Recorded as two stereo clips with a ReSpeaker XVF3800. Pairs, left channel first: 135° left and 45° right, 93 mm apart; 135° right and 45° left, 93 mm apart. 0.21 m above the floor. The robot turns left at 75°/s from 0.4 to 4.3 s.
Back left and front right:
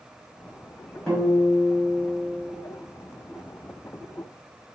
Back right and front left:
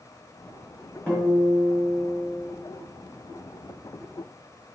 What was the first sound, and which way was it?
A guitar, 175° right.